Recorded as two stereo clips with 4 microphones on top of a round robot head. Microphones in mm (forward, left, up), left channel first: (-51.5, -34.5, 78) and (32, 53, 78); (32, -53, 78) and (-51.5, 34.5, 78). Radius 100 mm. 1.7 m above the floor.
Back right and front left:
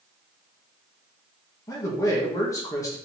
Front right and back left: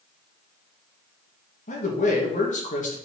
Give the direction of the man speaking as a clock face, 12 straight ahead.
2 o'clock.